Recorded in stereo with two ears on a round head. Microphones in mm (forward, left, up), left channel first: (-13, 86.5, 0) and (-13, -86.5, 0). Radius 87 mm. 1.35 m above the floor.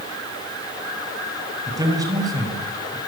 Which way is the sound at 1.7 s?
20° right (ahead or behind).